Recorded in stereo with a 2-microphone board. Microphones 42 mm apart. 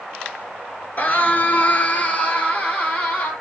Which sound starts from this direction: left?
A scream, at 1.0 s.